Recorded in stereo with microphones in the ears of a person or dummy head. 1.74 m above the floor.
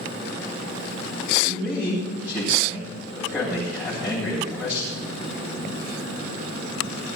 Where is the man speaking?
10° right (ahead or behind), 8.5 m.